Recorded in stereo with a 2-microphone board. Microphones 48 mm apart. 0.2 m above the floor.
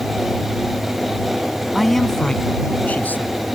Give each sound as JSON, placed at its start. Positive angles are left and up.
{"t": 1.7, "sound": "a man speaking", "side_deg": -5}